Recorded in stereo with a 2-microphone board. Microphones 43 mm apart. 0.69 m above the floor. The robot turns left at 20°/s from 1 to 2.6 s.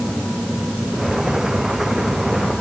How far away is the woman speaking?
I don't hear a woman speaking.